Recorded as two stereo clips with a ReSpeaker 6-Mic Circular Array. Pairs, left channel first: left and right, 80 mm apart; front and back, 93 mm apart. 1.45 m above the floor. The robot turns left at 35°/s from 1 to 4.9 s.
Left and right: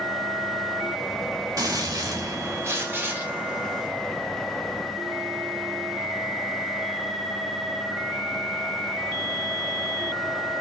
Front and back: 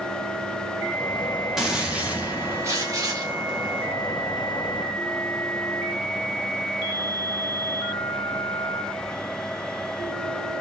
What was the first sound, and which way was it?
A gunshot, 95° right.